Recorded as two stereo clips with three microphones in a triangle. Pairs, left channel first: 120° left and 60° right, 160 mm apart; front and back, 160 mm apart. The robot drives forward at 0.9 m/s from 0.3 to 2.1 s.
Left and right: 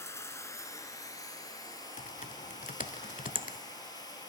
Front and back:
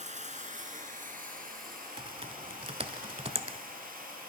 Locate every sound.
0.0 s running water: 170° right, 1.8 m; by 4.3 s 175° right, 3 m
2.0 s typing on a keyboard: 130° left, 0.7 m; by 3.6 s 135° left, 0.8 m